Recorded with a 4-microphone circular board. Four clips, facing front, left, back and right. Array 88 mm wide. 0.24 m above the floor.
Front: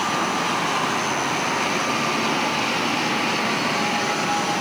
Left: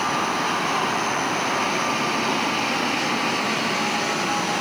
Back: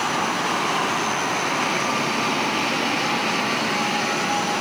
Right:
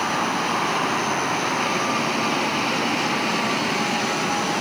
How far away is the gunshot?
I don't hear a gunshot.